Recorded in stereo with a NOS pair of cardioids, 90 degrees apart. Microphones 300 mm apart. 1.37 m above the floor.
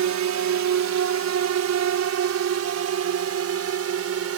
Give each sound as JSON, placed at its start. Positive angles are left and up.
{"t": 0.0, "sound": "a drone", "azimuth_deg": -65}